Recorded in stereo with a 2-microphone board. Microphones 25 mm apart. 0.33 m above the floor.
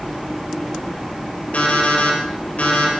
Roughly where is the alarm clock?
Left.